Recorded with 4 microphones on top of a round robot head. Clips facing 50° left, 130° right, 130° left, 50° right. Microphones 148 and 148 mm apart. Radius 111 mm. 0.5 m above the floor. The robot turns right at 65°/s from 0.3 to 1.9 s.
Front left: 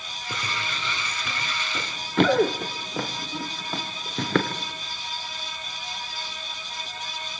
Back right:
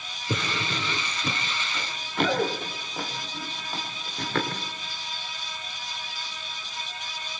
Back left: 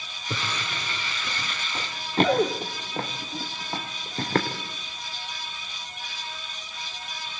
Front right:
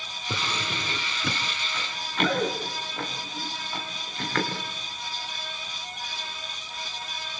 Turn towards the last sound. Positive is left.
turn(degrees=70)